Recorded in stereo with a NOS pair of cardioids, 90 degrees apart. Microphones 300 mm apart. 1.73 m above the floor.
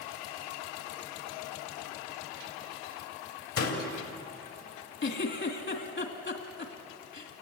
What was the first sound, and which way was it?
A door slam, 55° left.